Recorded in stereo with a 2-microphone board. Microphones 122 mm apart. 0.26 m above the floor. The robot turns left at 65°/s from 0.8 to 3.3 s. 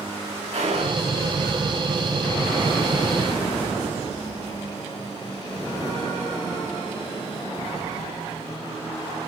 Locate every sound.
0.5 s a gunshot: 55° right (ahead or behind), 8 m; by 1.1 s 35° right (ahead or behind), 8 m